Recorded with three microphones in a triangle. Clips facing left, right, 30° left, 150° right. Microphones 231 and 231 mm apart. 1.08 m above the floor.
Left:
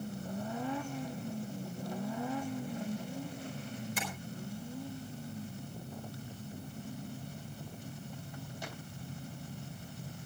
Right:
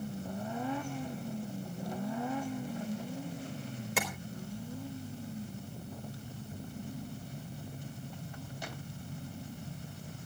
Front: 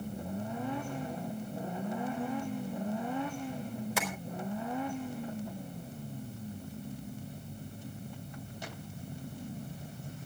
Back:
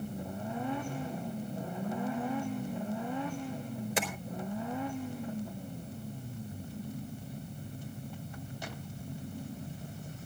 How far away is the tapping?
About 4 m.